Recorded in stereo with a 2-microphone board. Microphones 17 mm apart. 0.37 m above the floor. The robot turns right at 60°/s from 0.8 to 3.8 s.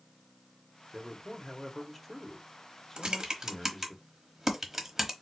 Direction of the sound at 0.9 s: 25° right (ahead or behind).